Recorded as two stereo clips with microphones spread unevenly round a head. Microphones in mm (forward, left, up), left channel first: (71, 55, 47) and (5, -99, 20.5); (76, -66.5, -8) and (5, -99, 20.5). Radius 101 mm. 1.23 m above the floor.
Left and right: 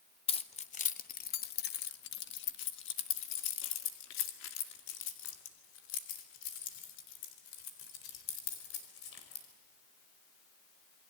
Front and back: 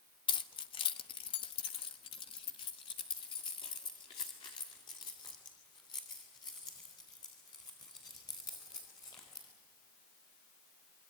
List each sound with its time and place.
0.3 s keys jangling: 10° left, 1.2 m; by 9.4 s 95° left, 5 m